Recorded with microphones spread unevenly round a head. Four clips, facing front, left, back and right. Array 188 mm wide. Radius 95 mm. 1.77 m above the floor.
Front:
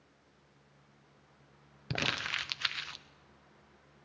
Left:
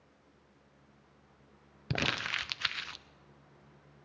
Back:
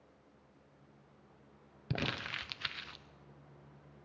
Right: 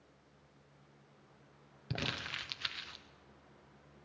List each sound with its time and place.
1.9 s crumpling: 75° left, 0.6 m